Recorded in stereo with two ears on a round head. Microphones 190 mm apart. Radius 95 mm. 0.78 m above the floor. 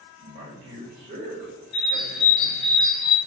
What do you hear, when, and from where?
0.2 s a man speaking: 30° right (ahead or behind), 0.9 m
1.7 s a bird: 45° left (ahead or behind), 0.6 m